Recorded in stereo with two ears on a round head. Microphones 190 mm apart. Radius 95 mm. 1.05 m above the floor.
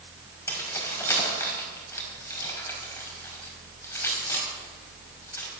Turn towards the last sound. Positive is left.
turn(degrees=15)  # may be behind; listen again after turning